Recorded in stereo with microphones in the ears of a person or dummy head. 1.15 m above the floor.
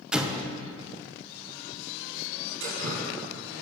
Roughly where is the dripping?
Right.